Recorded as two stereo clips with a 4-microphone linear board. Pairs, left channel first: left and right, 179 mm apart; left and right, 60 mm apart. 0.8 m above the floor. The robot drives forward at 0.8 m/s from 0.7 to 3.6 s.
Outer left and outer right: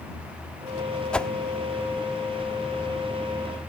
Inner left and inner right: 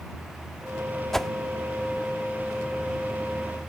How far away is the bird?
I don't hear a bird.